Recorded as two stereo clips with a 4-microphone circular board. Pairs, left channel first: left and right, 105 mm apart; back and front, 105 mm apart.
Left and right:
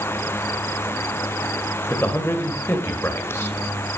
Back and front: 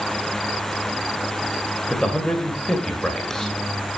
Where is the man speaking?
105° left, 1.4 m.